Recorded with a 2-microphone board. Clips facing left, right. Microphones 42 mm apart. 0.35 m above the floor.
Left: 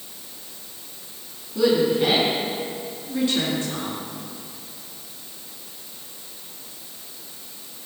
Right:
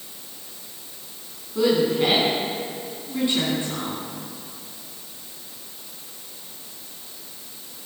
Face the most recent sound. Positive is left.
turn(degrees=-20)  # may be behind; listen again after turning